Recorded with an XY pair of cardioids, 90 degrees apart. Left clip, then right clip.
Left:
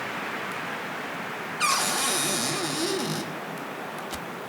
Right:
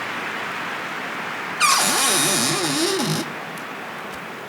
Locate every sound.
1.6 s a cupboard door: 55° right, 0.9 m